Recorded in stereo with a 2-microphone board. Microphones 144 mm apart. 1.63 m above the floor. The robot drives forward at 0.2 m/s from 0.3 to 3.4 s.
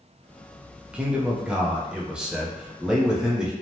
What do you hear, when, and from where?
0.9 s a man speaking: 5° right (ahead or behind), 0.5 m